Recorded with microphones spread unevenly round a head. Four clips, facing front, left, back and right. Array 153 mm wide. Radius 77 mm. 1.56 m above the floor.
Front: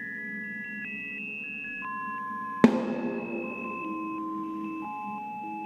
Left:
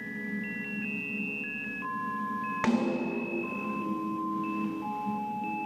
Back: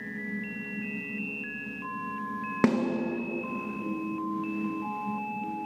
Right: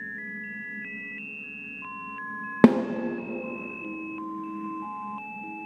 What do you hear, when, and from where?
2.6 s a snare drum: 80° right, 0.9 m